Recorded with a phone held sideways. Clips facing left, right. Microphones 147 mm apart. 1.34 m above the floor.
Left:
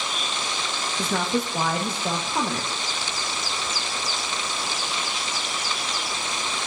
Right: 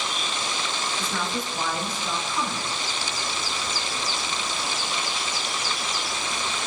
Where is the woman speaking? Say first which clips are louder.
Left 9 dB; 65° left (ahead or behind), 1.5 m.